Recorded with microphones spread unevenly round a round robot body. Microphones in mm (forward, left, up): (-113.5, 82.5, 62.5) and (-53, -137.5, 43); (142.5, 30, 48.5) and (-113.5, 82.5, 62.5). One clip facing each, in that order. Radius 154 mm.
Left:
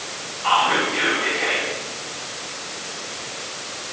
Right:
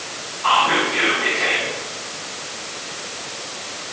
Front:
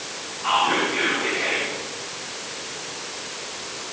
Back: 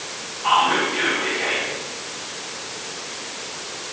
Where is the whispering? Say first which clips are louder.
Right 1 dB, back 1 dB; 90° right, 3 m.